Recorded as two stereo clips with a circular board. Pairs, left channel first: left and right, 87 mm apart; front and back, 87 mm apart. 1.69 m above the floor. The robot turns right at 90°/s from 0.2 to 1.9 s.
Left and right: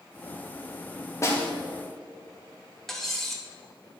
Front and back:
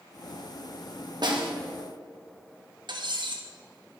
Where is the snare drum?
145° left, 1.5 m; by 1.5 s 170° left, 1.5 m.